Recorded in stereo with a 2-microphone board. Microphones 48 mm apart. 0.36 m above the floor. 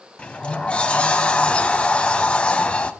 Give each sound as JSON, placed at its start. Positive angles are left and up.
{"t": 0.2, "sound": "a sliding door", "side_deg": 20, "distance_m": 0.8}